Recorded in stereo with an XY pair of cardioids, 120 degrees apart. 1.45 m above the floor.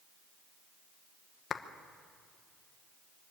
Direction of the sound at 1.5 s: 45° left.